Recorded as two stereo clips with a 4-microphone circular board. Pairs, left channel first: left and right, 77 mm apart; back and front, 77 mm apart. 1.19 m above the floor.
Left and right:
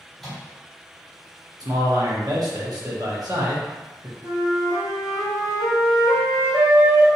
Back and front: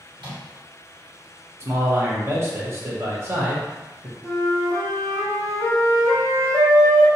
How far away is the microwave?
About 1.1 m.